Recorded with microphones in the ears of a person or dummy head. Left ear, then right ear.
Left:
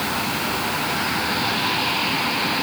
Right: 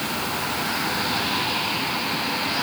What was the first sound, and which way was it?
Only background noise.